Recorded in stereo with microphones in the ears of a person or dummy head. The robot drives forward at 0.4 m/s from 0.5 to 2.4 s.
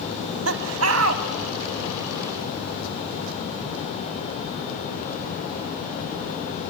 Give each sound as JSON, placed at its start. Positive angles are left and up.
{"t": 0.1, "sound": "laughter", "side_deg": -85, "distance_m": 3.5}